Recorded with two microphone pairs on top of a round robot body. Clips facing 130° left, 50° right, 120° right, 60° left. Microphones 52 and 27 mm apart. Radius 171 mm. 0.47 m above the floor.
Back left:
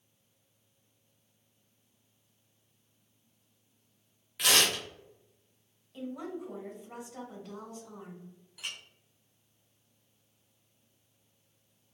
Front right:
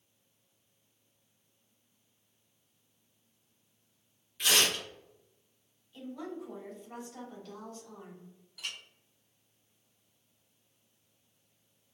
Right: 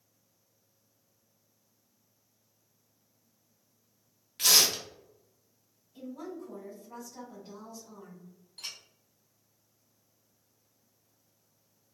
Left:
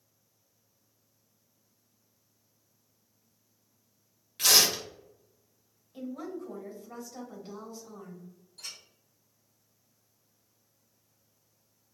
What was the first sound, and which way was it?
Tearing paper, 145° left.